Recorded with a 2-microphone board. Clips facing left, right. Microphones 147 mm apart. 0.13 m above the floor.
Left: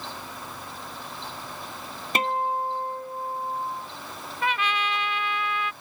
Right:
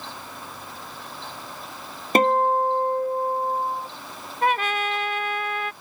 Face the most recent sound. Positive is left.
turn(degrees=-45)  # may be behind; listen again after turning